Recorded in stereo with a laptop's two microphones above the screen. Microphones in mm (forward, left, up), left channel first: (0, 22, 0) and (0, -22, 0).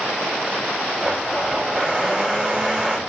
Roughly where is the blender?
Right.